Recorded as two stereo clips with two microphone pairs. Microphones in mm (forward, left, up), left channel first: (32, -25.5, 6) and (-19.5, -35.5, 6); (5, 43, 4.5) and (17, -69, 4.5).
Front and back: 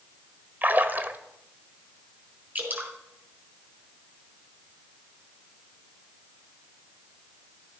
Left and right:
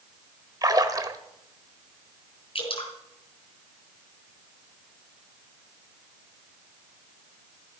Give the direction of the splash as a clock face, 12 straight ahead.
4 o'clock.